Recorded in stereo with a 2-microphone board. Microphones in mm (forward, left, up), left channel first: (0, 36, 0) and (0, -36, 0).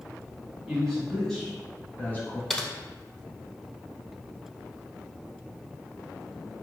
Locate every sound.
0.7 s a man speaking: 5° right (ahead or behind), 1.4 m; by 2.4 s 30° left (ahead or behind), 1.3 m
2.5 s typing on a keyboard: 5° left (ahead or behind), 0.6 m